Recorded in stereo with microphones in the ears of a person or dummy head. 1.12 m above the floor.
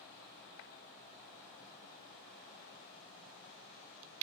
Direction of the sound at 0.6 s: 75° left (ahead or behind).